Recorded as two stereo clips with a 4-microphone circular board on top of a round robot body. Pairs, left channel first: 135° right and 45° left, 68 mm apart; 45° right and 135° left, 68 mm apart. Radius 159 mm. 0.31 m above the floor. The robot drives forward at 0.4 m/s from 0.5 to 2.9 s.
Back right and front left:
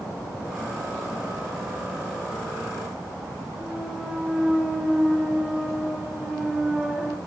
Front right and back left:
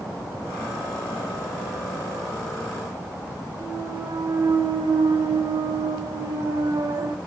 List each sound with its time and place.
3.6 s a clunk: 125° left, 2 m